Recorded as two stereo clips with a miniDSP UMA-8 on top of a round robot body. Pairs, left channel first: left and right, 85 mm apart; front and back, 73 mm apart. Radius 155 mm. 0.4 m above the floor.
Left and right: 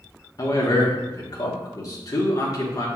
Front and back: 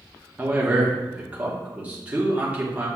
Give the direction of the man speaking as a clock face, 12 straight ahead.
8 o'clock.